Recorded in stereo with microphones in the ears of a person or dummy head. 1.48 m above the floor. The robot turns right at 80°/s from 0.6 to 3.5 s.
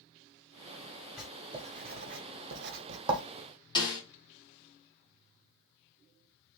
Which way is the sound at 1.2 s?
5° left (ahead or behind).